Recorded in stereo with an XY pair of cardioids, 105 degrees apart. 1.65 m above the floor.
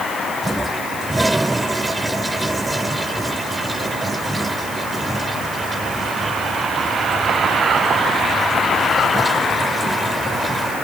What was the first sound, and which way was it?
A toilet flushing, 10° right.